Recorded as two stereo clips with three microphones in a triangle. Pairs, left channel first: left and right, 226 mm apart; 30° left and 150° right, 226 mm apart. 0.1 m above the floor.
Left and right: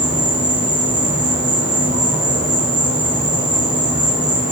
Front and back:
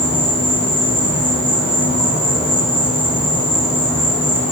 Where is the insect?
150° right, 5 m.